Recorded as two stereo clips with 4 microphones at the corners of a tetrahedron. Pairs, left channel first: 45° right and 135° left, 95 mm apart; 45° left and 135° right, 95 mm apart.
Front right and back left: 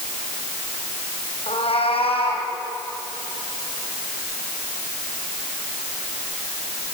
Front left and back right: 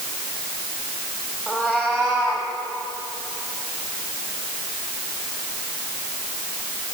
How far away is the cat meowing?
About 4 m.